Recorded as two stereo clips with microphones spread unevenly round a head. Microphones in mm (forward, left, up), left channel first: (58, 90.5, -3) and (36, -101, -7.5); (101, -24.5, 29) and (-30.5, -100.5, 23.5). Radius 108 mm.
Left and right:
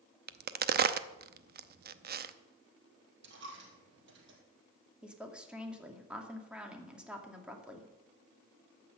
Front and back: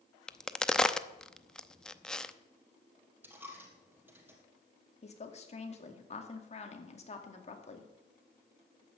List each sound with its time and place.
0.3 s a crack: 55° right, 0.7 m
3.2 s a dropped coin: 70° right, 3.5 m
5.0 s a woman speaking: 15° right, 2.5 m